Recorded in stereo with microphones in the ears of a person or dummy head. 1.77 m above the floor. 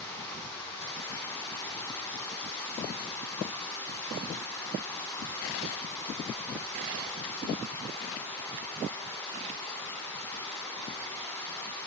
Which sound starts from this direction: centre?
Running water, at 0.0 s.